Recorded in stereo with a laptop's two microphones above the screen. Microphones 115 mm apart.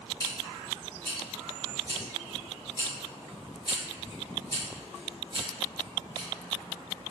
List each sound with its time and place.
0.2 s scissors: 30° left (ahead or behind), 1.5 m